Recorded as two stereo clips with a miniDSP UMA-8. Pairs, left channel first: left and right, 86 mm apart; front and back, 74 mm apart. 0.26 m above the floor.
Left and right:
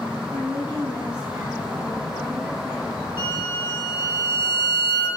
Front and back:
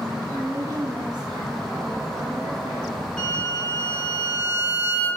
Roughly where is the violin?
Left.